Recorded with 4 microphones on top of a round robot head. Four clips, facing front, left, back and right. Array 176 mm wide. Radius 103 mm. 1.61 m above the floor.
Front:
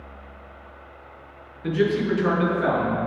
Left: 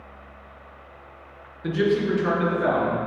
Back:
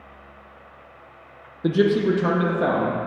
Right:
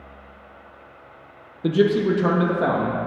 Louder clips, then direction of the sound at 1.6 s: Right 4 dB, back 3 dB; 140° right.